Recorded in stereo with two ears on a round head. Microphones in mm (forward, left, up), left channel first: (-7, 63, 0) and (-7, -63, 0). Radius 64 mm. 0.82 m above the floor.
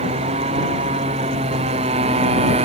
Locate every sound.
0.0 s a motorcycle: 40° right (ahead or behind)